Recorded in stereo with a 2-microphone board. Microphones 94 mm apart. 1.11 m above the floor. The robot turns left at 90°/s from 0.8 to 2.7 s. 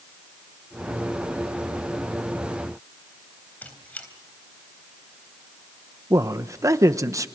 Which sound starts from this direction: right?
A man speaking, at 6.1 s.